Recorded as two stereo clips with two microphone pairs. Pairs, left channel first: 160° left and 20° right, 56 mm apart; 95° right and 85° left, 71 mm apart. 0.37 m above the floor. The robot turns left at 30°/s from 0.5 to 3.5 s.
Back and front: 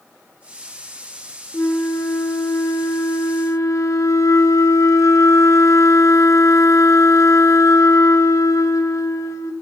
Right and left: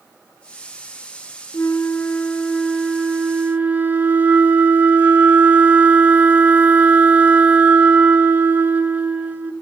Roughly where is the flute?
Behind right.